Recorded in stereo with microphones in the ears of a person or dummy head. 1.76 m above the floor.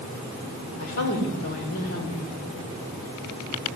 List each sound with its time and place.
0.8 s a woman speaking: 50° left (ahead or behind), 5 m